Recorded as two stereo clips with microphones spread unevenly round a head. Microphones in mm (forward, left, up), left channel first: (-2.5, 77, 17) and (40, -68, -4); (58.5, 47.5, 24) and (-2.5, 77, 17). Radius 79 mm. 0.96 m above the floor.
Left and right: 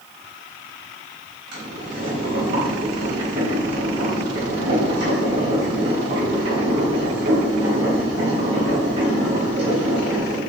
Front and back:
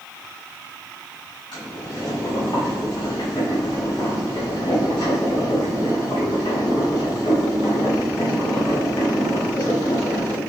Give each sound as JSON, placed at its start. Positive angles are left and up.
{"t": 1.5, "sound": "boiling", "azimuth_deg": -80, "distance_m": 3.5}